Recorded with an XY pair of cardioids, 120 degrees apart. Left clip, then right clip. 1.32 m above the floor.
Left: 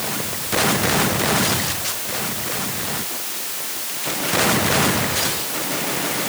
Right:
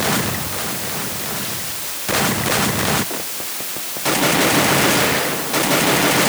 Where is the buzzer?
No buzzer in this recording.